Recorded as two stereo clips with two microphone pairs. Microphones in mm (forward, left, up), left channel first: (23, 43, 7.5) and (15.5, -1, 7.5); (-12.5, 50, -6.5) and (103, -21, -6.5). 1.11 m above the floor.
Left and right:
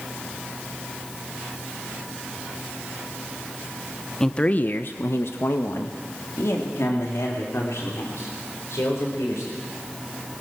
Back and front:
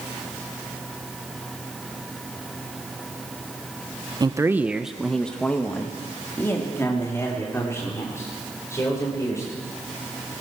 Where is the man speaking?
5° left, 0.8 m; by 9.5 s 80° left, 5.5 m.